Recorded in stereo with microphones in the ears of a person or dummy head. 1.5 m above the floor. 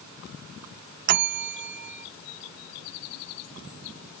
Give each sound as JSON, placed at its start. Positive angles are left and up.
{"t": 1.1, "sound": "a bell", "side_deg": -55}